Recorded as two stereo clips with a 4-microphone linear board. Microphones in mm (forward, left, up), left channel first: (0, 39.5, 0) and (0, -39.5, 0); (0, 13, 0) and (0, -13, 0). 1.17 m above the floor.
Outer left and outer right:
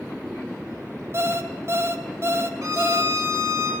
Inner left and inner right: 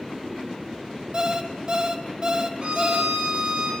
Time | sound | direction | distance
1.1 | an alarm clock | 35° right (ahead or behind) | 2.5 m
2.6 | a violin | 40° right (ahead or behind) | 9 m